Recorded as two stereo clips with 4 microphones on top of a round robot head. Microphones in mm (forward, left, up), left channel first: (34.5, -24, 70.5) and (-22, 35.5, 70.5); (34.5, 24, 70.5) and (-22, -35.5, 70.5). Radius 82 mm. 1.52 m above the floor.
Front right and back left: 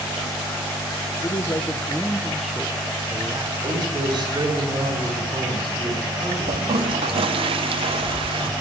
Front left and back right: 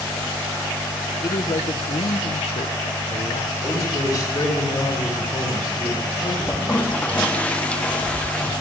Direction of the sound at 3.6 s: 90° left.